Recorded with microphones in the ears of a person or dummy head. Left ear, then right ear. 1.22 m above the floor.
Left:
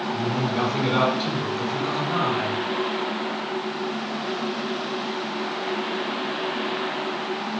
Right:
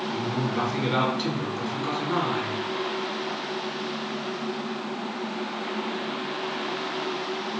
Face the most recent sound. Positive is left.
turn(degrees=-55)  # may be behind; listen again after turning